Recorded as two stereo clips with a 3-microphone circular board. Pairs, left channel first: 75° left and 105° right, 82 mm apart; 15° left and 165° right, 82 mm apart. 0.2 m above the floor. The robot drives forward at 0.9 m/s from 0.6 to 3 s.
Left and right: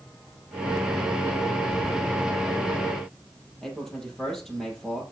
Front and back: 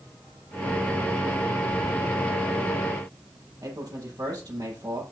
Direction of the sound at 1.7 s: 20° left.